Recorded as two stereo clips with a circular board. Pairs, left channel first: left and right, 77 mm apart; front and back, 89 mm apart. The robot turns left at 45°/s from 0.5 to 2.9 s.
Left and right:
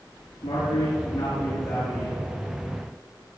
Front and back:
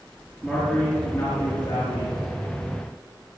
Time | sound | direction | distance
0.4 | a man speaking | 100° left | 5.5 m